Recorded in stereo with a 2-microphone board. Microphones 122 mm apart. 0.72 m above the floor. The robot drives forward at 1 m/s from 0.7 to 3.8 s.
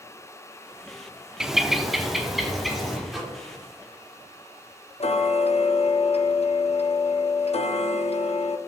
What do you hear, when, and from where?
1.4 s a bird: 5° right (ahead or behind), 0.5 m; by 3.0 s centre (ahead or behind), 2 m
3.1 s a microwave: centre (ahead or behind), 1.9 m
5.0 s ticking: 55° left (ahead or behind), 0.5 m